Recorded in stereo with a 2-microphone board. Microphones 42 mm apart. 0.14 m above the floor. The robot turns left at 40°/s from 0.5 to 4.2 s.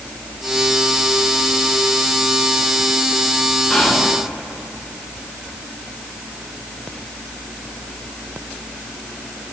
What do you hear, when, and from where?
3.7 s whispering: 25° left (ahead or behind), 1.3 m; by 4.2 s 35° left (ahead or behind), 1.3 m